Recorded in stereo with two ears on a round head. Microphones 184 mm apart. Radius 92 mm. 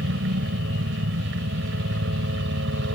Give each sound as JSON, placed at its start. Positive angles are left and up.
{"t": 0.0, "sound": "a helicopter", "side_deg": -60}